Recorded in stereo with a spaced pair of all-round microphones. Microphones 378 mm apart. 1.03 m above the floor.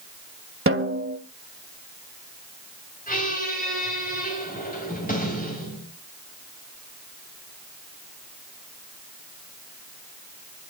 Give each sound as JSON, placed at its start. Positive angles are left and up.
{"t": 0.7, "sound": "a snare drum", "side_deg": -35, "distance_m": 1.4}
{"t": 3.1, "sound": "a squeak", "side_deg": 20, "distance_m": 5.0}